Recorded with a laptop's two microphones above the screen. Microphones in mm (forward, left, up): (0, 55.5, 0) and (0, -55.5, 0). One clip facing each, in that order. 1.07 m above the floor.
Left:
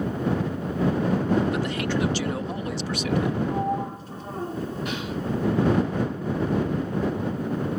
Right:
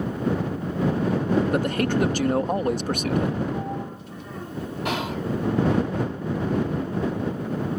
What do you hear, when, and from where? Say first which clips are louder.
1.5 s a man speaking: right 3 dB; 45° right (ahead or behind)
3.5 s a sliding door: left 3 dB; 35° left (ahead or behind)
4.8 s whispering: right 3 dB; 80° right